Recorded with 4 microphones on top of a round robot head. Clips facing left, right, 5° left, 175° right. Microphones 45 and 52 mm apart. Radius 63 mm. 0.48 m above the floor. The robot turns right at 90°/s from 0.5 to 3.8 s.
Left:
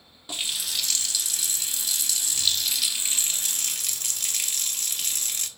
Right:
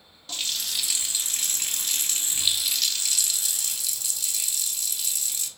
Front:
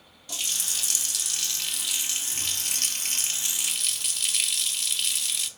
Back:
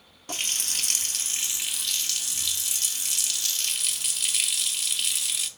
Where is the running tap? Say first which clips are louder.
Left 1 dB, back 2 dB; 160° left, 0.5 m; by 5.5 s 95° left, 0.5 m.